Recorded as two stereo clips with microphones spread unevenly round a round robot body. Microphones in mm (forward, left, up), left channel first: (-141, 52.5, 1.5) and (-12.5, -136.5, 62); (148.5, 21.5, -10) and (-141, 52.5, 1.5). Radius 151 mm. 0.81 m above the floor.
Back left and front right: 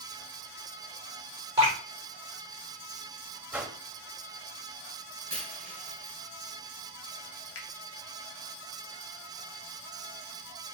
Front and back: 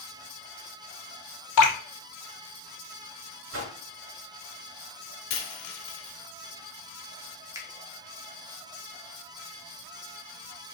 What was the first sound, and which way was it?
Dripping, 25° left.